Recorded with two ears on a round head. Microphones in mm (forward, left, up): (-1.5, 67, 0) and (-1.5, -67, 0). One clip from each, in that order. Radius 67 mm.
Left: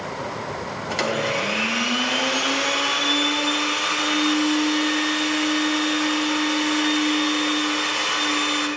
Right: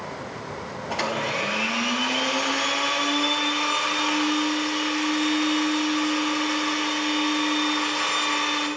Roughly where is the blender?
Left.